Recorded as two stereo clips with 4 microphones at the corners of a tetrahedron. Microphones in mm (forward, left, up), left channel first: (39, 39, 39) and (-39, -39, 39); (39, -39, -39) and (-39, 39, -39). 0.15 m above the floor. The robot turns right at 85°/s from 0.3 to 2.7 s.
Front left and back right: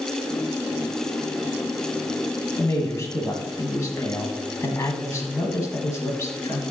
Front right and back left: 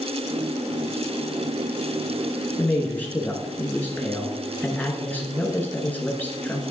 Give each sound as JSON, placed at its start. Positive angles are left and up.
{"t": 2.6, "sound": "a man speaking", "azimuth_deg": 0, "distance_m": 1.2}